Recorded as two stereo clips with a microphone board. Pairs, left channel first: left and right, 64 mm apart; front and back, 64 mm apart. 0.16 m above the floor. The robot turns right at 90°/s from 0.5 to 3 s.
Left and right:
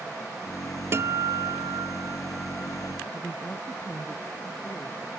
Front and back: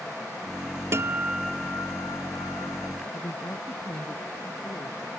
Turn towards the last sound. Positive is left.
turn(degrees=25)